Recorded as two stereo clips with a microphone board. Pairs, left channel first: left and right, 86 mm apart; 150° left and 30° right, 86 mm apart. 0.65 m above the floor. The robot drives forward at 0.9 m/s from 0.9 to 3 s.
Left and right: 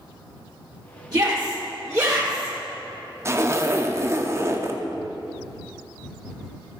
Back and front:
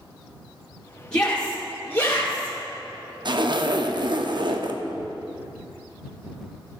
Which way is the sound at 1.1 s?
130° right.